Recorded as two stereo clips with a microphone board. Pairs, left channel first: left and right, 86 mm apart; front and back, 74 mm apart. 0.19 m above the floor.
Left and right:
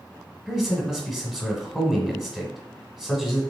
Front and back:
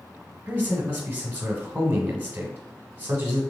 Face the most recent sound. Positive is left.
turn(degrees=-165)